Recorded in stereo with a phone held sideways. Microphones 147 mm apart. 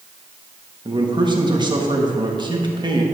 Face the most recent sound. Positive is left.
turn(degrees=-30)  # may be behind; listen again after turning